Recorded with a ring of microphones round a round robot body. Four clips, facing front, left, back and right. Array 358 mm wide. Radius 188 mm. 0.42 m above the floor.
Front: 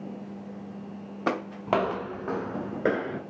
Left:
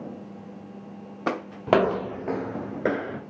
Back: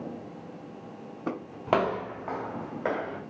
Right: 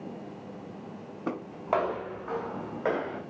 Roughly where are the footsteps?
Left.